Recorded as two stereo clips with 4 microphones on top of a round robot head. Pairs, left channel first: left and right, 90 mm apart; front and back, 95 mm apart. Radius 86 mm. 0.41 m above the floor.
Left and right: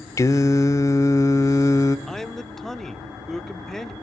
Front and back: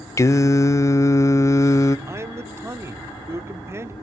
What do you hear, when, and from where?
0.2 s singing: 50° left, 0.7 m
2.1 s a man speaking: 170° left, 0.8 m